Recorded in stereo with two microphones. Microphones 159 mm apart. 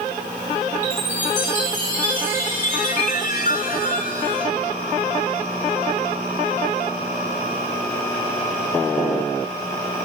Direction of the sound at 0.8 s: 50° left (ahead or behind).